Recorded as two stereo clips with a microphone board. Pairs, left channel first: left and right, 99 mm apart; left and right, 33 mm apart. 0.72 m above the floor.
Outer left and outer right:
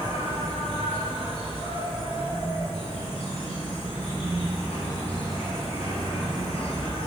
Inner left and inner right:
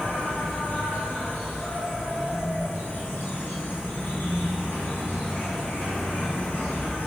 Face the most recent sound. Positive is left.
turn(degrees=80)